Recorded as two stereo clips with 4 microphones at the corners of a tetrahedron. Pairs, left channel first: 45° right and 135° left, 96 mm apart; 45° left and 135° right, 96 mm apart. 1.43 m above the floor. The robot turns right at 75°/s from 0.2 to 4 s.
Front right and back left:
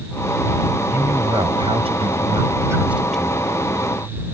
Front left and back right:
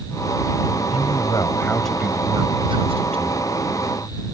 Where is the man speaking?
60° left; by 3.6 s 95° right.